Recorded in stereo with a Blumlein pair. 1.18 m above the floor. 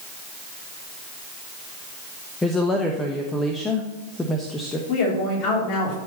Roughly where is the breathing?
I don't hear breathing.